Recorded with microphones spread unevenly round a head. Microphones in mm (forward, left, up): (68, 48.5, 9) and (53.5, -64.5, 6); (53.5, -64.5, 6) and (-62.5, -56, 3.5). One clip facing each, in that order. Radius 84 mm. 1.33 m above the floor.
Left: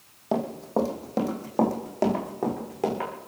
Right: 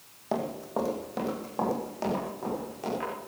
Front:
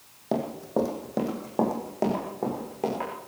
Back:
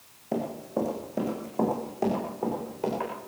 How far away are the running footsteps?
About 3 m.